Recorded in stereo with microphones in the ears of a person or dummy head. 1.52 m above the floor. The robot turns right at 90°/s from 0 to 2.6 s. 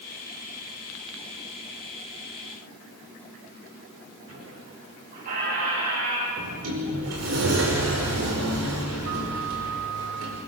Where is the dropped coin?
No dropped coin in this recording.